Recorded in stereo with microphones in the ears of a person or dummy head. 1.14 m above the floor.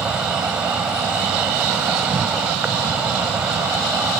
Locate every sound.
0.0 s an insect: 5° right (ahead or behind)